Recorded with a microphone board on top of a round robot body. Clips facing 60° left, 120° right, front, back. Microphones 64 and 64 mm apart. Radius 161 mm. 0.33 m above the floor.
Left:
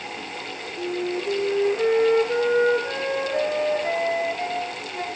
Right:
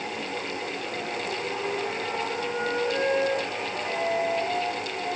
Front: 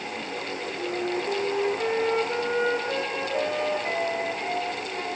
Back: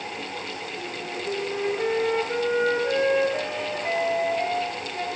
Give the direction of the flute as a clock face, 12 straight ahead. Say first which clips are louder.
Left 5 dB, front 8 dB; 9 o'clock.